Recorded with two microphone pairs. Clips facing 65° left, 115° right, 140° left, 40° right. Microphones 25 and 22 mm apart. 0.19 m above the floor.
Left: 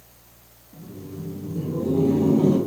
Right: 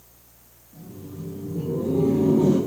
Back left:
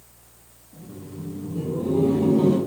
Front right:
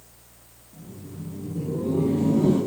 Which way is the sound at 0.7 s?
140° left.